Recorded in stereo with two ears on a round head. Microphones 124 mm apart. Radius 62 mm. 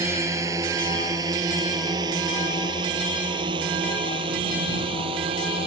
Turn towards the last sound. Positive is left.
turn(degrees=-40)  # may be behind; listen again after turning